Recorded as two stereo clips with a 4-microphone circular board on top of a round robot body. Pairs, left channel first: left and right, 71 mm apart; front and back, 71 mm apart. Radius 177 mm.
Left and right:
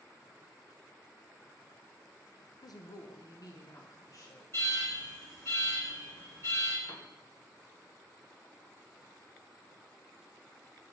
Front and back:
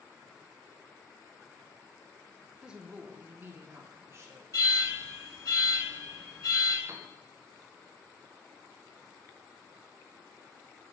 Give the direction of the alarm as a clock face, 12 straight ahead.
11 o'clock.